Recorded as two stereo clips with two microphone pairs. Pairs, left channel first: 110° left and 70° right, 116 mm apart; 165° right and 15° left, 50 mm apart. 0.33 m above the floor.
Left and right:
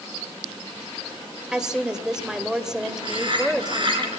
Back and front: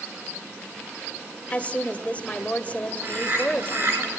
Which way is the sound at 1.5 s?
150° right.